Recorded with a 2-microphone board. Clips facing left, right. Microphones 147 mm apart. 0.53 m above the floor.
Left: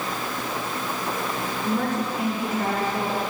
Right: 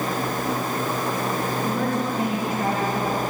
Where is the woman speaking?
35° right (ahead or behind), 3 m; by 3.2 s 40° right (ahead or behind), 4.5 m.